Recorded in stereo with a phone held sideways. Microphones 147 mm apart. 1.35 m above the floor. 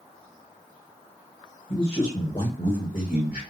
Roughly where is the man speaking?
Left.